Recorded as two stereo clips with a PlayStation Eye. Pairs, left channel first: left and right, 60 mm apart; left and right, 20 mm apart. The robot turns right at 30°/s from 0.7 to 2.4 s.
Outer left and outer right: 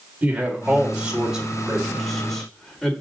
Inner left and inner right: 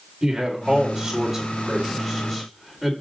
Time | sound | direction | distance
0.2 | a man speaking | 25° right (ahead or behind) | 1.8 m